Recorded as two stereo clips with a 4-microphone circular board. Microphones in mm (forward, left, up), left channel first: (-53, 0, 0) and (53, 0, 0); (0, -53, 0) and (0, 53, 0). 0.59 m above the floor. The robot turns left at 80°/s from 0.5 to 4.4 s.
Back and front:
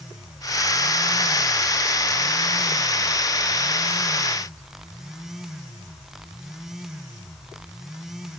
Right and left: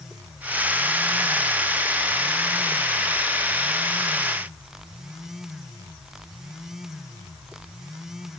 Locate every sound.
Only background noise.